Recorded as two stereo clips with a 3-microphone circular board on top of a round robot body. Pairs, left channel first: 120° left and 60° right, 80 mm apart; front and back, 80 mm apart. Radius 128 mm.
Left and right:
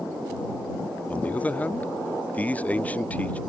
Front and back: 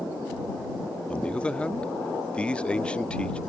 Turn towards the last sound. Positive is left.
turn(degrees=65)